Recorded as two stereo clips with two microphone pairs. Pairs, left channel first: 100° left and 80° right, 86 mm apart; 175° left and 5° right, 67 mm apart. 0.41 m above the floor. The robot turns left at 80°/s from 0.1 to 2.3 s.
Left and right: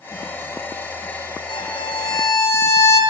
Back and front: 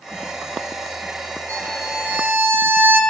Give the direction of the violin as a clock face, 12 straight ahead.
8 o'clock.